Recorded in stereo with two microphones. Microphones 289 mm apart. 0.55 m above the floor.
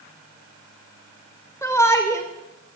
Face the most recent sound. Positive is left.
turn(degrees=10)  # may be behind; listen again after turning